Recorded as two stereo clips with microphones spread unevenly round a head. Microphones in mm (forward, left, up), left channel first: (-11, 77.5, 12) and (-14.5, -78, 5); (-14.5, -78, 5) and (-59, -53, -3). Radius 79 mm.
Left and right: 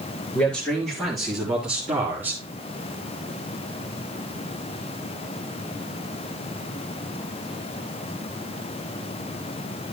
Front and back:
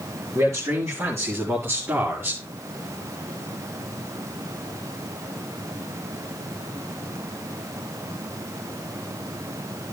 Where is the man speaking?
170° left, 5 m; by 2.4 s 165° right, 3.5 m.